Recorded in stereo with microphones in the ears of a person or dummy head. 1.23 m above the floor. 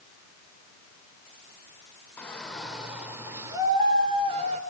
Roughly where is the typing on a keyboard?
No typing on a keyboard in this recording.